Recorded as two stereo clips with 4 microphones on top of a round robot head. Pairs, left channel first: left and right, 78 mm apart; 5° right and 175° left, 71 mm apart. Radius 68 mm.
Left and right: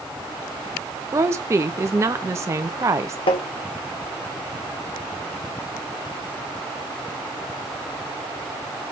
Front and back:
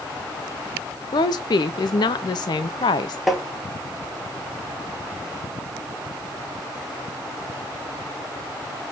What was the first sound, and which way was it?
A woman speaking, 30° right.